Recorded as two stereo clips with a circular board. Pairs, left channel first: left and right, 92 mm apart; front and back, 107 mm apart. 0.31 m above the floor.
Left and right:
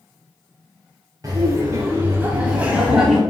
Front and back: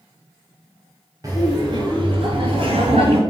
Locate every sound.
1.2 s laughter: 130° right, 1.5 m; by 3.2 s 175° right, 1.8 m